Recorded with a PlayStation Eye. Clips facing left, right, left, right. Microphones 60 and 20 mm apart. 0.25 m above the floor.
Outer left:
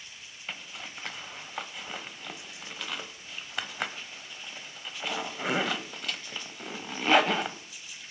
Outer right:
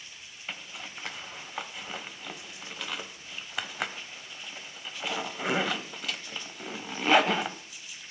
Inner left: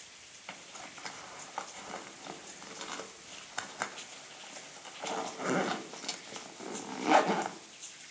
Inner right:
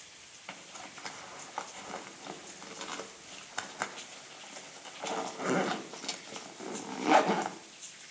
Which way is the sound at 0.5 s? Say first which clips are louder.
Even, inner right 1 dB; centre (ahead or behind).